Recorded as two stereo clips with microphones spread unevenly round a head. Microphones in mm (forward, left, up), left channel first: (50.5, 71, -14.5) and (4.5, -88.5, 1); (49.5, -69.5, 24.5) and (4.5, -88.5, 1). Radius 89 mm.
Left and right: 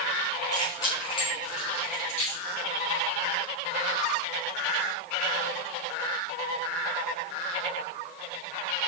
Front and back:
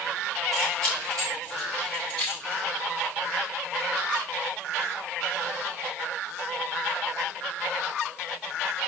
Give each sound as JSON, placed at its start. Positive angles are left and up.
{"t": 0.5, "sound": "keys jangling", "azimuth_deg": 145, "distance_m": 7.0}